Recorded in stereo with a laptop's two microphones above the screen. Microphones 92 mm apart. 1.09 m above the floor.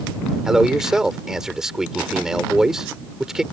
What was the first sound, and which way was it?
A man speaking, 5° right (ahead or behind).